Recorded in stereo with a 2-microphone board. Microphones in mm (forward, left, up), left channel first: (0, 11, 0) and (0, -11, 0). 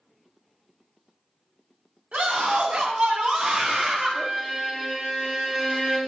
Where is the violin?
25° right (ahead or behind), 1.8 m.